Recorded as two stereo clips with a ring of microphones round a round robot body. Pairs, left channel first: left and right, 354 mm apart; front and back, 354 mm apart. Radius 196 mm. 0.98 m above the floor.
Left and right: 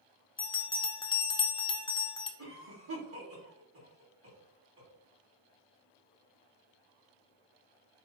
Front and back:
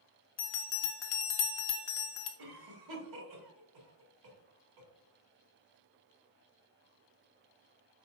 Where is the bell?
15° left, 0.8 m.